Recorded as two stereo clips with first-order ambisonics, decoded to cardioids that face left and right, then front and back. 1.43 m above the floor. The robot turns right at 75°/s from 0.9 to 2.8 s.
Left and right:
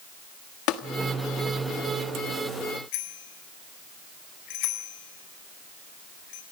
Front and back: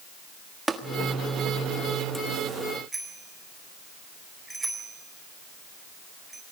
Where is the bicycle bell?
100° left, 4.5 m.